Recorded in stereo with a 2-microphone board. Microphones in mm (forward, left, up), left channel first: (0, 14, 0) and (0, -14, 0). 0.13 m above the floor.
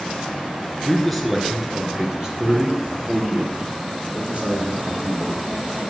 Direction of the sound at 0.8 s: 5° left (ahead or behind).